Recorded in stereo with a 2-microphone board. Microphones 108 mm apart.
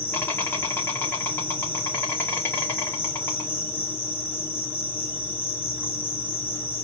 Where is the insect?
20° left (ahead or behind), 2 m.